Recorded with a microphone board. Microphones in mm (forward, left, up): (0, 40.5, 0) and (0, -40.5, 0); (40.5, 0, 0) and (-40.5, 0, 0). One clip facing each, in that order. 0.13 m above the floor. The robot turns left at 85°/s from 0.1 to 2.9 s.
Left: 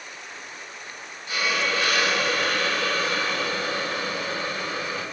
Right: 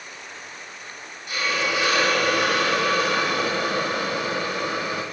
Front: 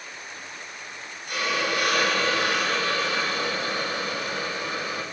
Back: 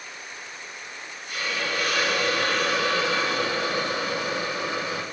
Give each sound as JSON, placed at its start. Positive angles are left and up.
{"t": 1.3, "sound": "a hiss", "azimuth_deg": 25, "distance_m": 2.0}